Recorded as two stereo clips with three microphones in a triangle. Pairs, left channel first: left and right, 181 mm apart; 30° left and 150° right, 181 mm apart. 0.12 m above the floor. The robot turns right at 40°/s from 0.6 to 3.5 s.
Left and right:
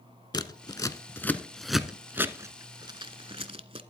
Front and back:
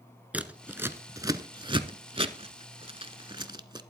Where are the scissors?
135° left, 0.6 m; by 3.8 s 110° right, 0.6 m.